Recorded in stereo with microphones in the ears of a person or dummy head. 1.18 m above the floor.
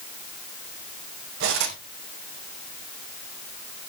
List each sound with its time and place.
1.4 s cutlery clinking: 65° right (ahead or behind), 3 m